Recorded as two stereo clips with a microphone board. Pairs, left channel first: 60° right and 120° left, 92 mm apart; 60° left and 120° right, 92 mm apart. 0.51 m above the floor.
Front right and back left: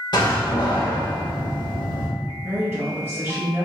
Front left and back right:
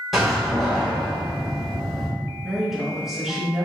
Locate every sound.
0.1 s a door slam: 30° right, 1.6 m
2.4 s a woman speaking: 160° left, 1.3 m